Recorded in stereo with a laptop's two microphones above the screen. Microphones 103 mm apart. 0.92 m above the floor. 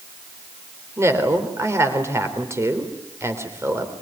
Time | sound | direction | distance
1.0 | a woman speaking | 30° right (ahead or behind) | 3 m